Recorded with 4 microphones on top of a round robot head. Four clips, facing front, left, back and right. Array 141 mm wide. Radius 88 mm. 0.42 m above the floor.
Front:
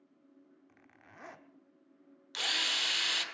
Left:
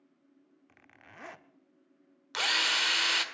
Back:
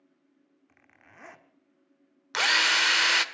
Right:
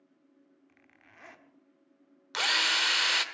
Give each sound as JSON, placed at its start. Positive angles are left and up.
{"t": 0.7, "sound": "a zipper", "azimuth_deg": 90, "distance_m": 1.2}
{"t": 2.3, "sound": "a drill", "azimuth_deg": -175, "distance_m": 1.4}